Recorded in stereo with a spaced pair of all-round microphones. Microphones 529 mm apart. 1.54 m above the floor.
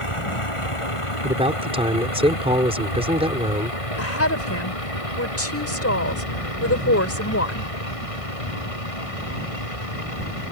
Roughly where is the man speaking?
Centre.